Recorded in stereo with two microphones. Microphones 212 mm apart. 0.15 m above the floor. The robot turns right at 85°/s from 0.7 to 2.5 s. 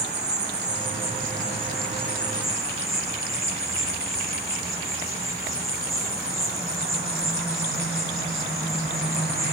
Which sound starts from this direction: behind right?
An insect, at 0.0 s.